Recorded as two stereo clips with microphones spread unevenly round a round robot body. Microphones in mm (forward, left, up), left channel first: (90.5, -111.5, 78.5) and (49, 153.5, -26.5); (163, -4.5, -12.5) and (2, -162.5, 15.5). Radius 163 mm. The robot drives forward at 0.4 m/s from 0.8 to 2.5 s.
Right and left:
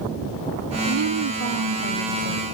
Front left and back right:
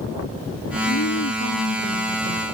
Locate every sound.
0.9 s a woman speaking: 80° left; by 2.4 s 95° left